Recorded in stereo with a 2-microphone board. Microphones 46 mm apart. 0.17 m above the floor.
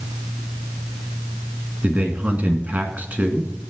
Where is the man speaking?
35° right (ahead or behind), 1.7 m.